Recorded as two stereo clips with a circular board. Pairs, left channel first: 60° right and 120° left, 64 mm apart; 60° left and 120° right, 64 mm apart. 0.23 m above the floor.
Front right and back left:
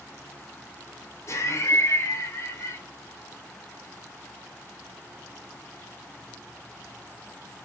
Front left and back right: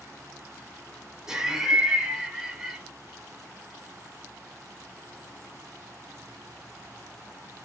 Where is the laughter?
40° right, 2 m.